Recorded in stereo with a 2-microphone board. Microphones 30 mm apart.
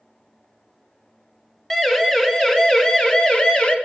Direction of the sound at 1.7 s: 15° left (ahead or behind).